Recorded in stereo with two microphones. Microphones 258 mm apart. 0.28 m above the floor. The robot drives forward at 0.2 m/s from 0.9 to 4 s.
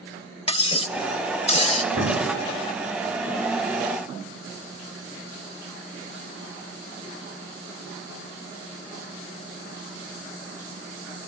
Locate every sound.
0.5 s cutlery clinking: 20° left (ahead or behind), 0.5 m; by 1.8 s 25° left (ahead or behind), 0.5 m
1.9 s an explosion: 60° right (ahead or behind), 5 m